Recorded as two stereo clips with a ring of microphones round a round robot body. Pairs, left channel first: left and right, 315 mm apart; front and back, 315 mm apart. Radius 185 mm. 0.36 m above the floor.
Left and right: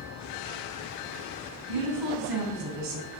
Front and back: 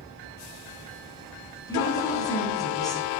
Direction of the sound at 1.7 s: 80° right.